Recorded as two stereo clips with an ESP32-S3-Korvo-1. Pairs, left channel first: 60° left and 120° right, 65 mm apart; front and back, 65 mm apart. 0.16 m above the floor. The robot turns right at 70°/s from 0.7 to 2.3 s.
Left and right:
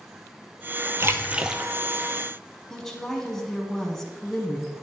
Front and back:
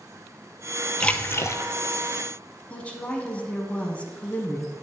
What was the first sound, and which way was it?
A splash, 75° right.